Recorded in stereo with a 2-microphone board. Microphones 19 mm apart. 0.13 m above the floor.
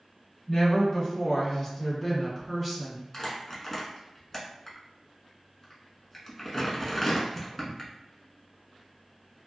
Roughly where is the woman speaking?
Left.